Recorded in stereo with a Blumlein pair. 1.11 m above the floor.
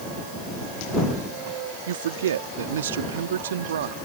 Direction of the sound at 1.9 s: 60° right.